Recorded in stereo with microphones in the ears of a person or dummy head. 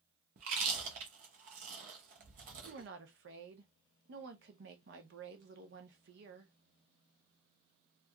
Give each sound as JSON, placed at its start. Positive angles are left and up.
{"t": 0.4, "sound": "chewing", "side_deg": -40, "distance_m": 0.7}
{"t": 2.6, "sound": "a woman speaking", "side_deg": -60, "distance_m": 0.7}